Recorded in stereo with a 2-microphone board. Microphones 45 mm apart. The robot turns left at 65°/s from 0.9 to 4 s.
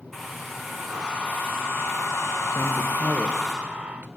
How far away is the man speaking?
About 3.5 m.